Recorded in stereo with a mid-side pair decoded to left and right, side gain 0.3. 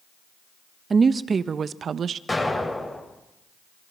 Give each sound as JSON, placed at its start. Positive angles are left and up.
{"t": 0.9, "sound": "a woman speaking", "azimuth_deg": -50, "distance_m": 1.4}
{"t": 2.3, "sound": "an explosion", "azimuth_deg": 30, "distance_m": 8.5}